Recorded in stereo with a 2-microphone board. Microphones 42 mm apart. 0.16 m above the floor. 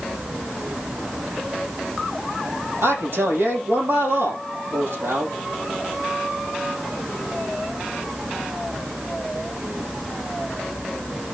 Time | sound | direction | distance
2.8 | a man speaking | 70° right (ahead or behind) | 4 m